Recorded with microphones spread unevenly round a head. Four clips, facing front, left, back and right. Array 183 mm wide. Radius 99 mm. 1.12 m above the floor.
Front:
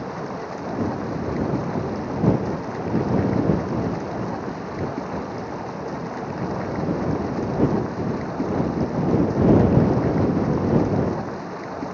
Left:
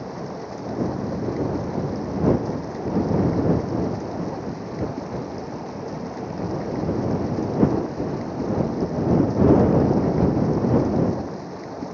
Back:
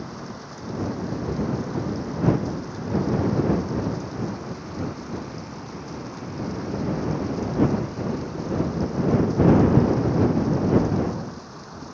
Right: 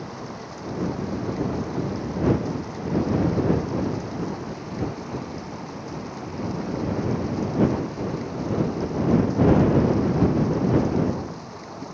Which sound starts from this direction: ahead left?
Running water, at 0.0 s.